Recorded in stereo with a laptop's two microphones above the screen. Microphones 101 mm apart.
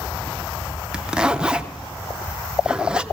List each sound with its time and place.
0.9 s a zipper: 10° right (ahead or behind), 0.6 m